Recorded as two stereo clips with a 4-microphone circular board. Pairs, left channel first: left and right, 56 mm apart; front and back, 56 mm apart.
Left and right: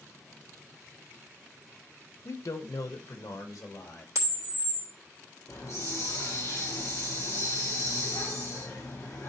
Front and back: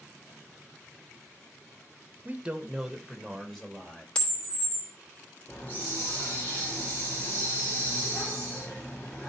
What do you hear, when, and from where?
2.2 s a man speaking: 120° left, 0.8 m; by 4.0 s 80° left, 2.5 m
4.2 s a camera shutter: 70° right, 2.5 m
5.5 s a hiss: 65° left, 4 m